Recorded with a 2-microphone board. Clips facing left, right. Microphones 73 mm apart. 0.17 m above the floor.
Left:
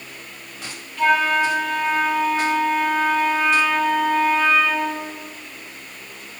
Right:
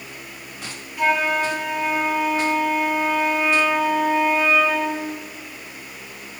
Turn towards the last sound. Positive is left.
turn(degrees=-15)  # may be behind; listen again after turning